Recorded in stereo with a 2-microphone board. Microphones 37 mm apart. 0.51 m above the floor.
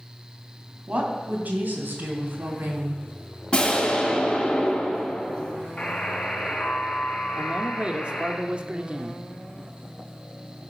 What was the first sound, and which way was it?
A woman speaking, 45° right (ahead or behind).